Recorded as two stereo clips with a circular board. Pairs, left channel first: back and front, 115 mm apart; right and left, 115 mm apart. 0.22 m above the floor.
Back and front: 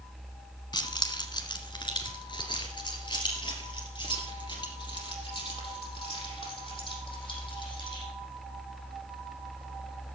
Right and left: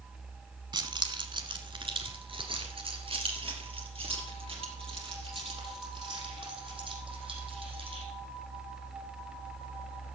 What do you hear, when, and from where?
0.7 s keys jangling: 135° left, 1.1 m; by 8.1 s 130° left, 6 m